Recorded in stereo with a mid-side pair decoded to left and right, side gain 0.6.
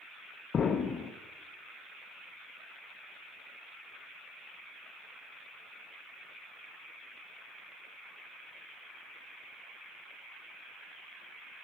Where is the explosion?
40° left, 1.0 m.